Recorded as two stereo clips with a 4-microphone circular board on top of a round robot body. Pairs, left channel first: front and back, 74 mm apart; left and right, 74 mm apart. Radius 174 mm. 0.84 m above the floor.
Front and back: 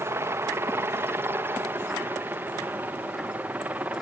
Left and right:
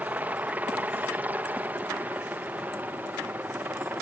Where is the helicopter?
150° right; by 4.0 s 130° right.